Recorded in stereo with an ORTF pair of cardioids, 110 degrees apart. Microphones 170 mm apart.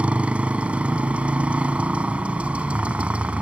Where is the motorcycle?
5° right.